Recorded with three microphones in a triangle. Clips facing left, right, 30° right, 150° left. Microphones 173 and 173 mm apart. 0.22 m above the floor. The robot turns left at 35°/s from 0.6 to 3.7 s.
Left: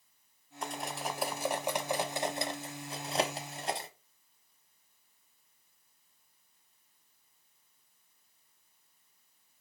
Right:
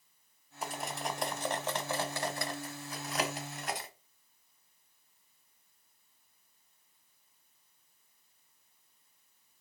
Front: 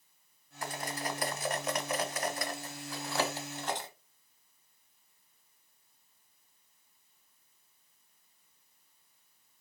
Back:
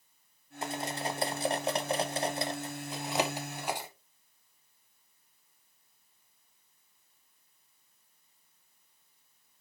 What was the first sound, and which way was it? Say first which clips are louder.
Cutlery clinking: even, back 3 dB; 170° right.